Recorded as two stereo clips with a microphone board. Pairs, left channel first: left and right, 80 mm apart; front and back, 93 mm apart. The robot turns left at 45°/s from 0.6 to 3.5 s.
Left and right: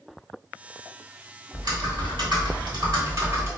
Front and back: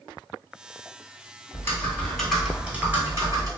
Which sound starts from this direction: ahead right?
Typing on a keyboard, at 1.5 s.